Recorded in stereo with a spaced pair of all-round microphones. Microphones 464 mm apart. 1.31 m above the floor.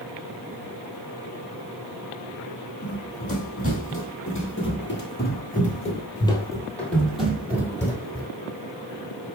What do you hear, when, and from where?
2.8 s running footsteps: 30° left (ahead or behind), 2 m; by 8.3 s 10° right (ahead or behind), 2 m